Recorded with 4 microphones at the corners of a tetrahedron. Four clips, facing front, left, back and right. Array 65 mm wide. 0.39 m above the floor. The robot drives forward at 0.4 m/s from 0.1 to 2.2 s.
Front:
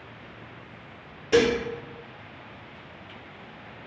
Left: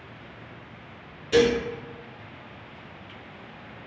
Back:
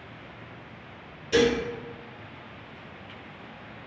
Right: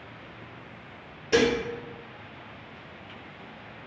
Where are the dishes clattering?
35° right, 0.6 m; by 1.6 s 45° right, 0.6 m.